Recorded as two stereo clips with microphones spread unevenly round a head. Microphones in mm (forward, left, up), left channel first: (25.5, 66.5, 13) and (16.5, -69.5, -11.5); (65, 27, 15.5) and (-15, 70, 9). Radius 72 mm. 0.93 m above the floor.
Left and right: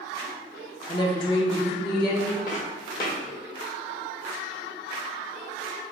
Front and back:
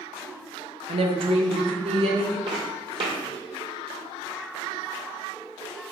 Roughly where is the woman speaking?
Behind left.